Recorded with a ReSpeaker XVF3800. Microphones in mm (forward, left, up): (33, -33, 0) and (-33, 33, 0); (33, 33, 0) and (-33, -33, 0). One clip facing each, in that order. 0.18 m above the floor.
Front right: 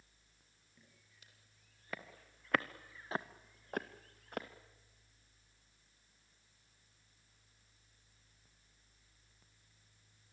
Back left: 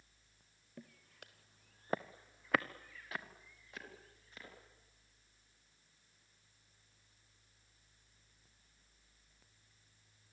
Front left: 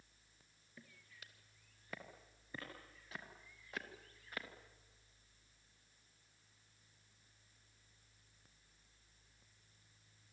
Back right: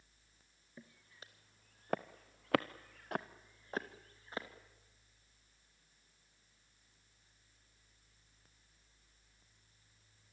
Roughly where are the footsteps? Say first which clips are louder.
Back left 13 dB, back right 4 dB; behind.